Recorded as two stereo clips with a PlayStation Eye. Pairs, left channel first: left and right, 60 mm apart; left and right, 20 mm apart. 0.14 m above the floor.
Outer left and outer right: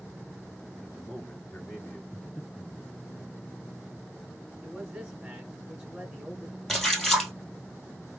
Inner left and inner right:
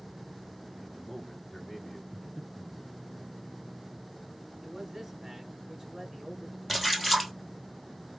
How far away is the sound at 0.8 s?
About 2.5 m.